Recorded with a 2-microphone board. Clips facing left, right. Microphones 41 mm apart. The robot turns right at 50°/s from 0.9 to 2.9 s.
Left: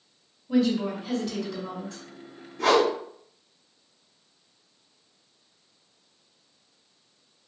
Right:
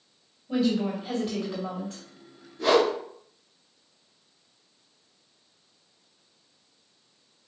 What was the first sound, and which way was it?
A woman speaking, 165° right.